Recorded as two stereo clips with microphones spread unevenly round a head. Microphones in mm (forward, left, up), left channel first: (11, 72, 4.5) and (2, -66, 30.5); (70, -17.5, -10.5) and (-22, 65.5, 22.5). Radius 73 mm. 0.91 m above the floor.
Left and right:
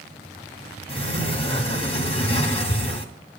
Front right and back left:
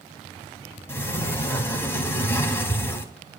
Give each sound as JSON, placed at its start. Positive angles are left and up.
{"t": 0.9, "sound": "a sliding door", "azimuth_deg": 35, "distance_m": 2.0}